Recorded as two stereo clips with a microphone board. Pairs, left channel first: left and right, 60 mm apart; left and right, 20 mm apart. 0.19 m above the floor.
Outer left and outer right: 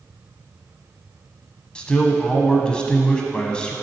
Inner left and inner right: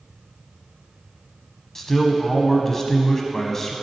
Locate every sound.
1.8 s a man speaking: 15° left (ahead or behind), 1.0 m